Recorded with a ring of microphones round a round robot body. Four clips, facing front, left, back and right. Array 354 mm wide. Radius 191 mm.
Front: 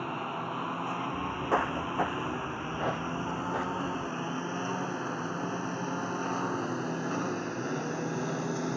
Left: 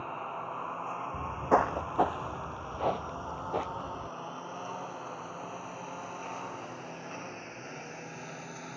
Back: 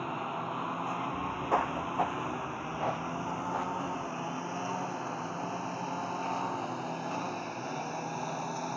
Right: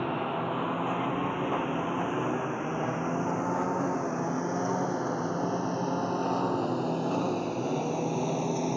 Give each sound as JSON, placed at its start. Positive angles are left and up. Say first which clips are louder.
{"t": 0.0, "sound": "a lawn mower", "louder": "right 8 dB, front 1 dB", "azimuth_deg": -85}
{"t": 1.1, "sound": "footsteps", "louder": "left 2 dB, front 1 dB", "azimuth_deg": 80}